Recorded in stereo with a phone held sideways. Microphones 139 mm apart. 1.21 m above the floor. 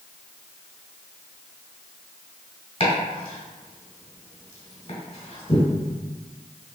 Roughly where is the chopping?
Left.